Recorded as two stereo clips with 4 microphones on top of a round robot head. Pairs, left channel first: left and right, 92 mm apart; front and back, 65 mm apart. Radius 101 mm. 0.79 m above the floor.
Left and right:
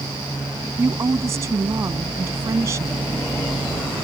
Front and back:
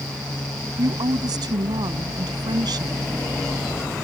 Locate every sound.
0.8 s a woman speaking: 155° right